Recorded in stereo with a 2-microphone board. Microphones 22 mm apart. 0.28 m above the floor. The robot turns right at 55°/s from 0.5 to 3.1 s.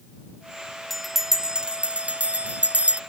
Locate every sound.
0.9 s a bell: straight behind; by 3.0 s 65° right